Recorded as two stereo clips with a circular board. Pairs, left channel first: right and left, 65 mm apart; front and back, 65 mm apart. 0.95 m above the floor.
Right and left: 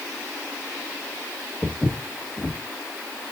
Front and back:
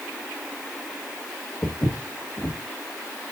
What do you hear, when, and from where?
1.6 s footsteps: 25° left, 1.1 m